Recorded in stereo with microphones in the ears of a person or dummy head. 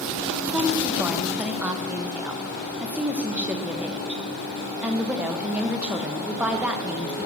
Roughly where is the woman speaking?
Centre.